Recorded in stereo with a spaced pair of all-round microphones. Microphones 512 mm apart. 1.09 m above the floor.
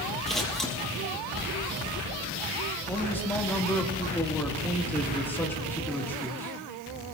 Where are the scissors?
Centre (ahead or behind), 5.5 m.